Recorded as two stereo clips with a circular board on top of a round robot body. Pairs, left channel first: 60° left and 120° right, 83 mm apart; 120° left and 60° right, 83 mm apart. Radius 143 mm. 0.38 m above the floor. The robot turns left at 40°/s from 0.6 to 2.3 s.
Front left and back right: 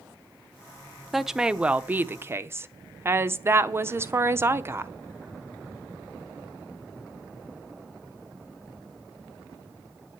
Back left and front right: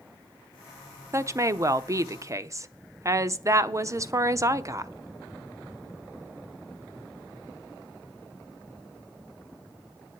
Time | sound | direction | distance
1.1 | a woman speaking | 30° right | 1.0 m